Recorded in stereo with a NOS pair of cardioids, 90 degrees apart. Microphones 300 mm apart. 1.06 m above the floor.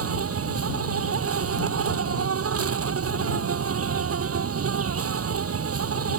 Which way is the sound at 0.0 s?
50° right.